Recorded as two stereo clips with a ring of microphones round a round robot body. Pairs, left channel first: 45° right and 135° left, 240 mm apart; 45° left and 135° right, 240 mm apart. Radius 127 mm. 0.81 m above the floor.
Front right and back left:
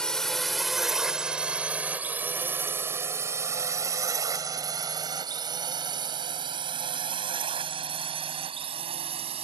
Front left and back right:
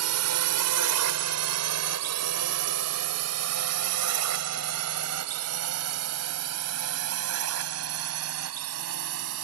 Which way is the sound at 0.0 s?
130° right.